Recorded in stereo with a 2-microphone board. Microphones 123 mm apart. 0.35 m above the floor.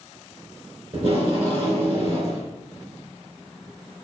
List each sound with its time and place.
0.9 s tape being pulled: 50° right (ahead or behind), 3 m